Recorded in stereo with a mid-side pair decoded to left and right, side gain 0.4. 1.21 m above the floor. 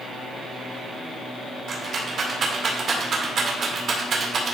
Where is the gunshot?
No gunshot in this recording.